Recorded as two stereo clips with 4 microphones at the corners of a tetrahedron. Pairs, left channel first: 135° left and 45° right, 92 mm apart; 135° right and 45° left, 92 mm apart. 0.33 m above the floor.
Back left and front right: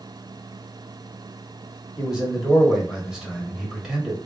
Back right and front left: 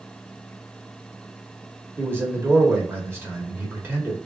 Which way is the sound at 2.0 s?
30° left.